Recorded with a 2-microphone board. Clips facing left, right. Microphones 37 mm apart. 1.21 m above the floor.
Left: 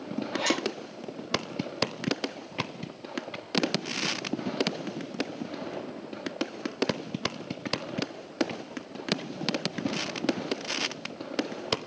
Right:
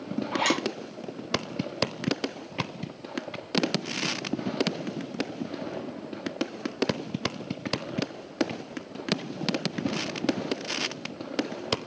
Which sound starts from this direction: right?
A zipper, at 0.3 s.